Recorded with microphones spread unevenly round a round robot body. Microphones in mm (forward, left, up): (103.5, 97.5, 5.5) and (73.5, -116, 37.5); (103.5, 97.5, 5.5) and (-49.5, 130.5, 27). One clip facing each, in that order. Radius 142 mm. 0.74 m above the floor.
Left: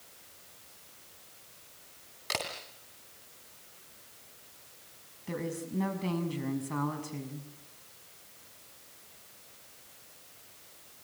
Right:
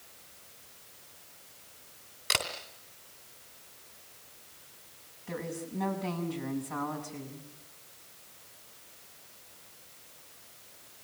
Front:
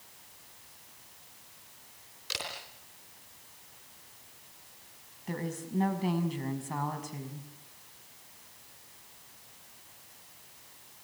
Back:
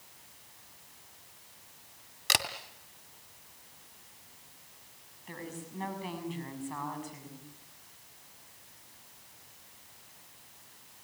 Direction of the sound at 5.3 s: 35° left.